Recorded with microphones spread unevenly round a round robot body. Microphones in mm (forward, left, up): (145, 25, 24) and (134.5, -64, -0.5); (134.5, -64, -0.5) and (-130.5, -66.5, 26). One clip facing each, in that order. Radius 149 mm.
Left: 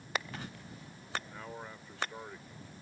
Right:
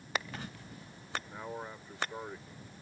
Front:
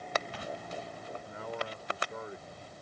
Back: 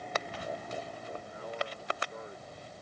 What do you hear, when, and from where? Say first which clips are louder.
1.2 s a man speaking: right 3 dB, front 1 dB; 20° right